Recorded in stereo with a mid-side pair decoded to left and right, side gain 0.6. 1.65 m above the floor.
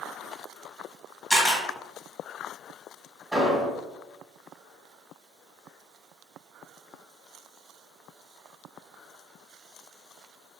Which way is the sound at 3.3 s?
5° right.